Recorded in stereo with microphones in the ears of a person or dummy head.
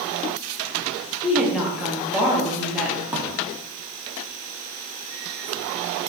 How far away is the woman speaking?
About 1.0 m.